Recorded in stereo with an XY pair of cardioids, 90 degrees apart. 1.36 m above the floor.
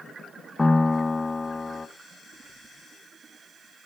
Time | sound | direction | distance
0.6 | a piano | 15° left | 1.0 m